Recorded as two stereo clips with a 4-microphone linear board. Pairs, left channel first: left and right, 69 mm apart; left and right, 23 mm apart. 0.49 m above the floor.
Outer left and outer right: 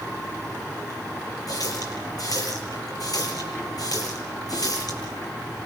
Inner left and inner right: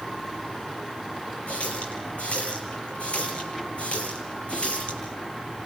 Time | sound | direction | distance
1.5 | a running tap | 60° left (ahead or behind) | 9.5 m